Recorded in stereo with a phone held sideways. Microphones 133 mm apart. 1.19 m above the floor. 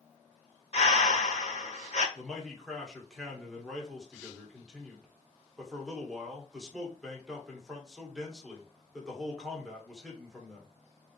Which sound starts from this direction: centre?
A man speaking, at 2.1 s.